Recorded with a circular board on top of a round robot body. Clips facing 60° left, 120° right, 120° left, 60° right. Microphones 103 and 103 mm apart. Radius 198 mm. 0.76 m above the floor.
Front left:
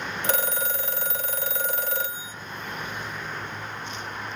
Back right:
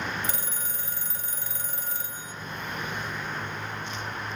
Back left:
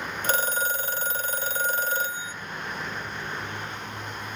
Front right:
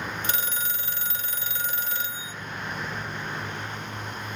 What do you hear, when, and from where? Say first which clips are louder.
0.2 s a phone ringing: front left 8 dB, back left 6 dB; 70° left, 0.7 m